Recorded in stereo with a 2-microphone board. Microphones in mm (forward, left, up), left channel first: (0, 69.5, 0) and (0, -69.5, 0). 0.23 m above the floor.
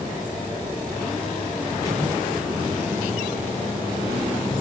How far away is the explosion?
About 7.5 m.